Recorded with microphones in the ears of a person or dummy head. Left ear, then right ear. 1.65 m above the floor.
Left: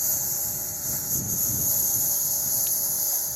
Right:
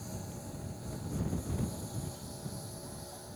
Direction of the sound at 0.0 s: 55° left (ahead or behind).